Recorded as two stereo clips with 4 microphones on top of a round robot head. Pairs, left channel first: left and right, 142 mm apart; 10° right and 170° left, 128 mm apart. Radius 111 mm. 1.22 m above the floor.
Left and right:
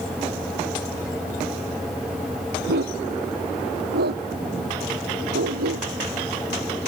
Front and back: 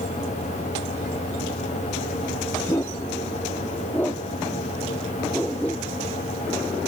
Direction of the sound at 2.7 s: 85° right.